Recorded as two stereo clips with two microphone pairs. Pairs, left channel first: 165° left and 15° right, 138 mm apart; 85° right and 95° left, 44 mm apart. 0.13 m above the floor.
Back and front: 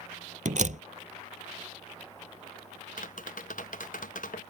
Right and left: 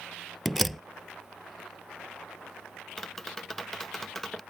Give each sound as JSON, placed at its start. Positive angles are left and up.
{"t": 0.5, "sound": "a door slam", "azimuth_deg": 0}
{"t": 3.0, "sound": "tapping", "azimuth_deg": -175}